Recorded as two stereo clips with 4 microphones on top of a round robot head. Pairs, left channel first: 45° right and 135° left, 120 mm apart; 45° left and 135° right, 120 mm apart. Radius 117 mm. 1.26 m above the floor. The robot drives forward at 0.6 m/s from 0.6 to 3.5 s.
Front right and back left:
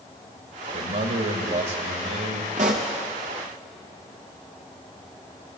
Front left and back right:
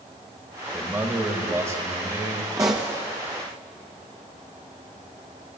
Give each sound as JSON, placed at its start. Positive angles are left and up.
{"t": 0.7, "sound": "a man speaking", "azimuth_deg": 150, "distance_m": 1.7}
{"t": 2.6, "sound": "a pop", "azimuth_deg": 160, "distance_m": 0.6}